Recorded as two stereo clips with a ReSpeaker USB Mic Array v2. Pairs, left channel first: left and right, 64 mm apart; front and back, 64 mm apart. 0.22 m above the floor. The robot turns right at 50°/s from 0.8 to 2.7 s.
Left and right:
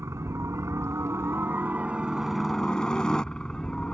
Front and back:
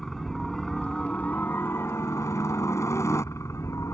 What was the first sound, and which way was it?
A helicopter, 80° right.